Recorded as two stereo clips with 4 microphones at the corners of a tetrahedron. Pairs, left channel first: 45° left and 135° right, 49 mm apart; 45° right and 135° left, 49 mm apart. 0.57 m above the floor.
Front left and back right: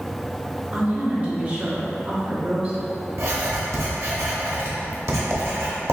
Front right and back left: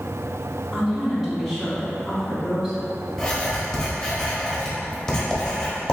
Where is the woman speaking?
145° right, 1.3 m.